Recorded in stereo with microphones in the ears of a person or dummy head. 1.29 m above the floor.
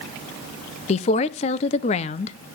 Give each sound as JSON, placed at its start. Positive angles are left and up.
{"t": 0.9, "sound": "a woman speaking", "side_deg": 35, "distance_m": 0.6}